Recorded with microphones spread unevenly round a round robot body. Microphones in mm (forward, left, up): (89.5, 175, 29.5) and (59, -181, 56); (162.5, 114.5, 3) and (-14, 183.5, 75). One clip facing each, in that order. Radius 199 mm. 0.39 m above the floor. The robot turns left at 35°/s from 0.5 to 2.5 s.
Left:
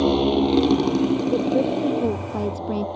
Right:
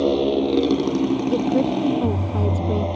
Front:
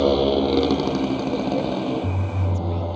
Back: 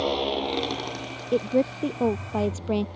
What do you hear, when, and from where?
0.0 s a motorcycle: 15° left; by 3.0 s 55° right
1.3 s a woman speaking: 150° right; by 2.9 s 170° left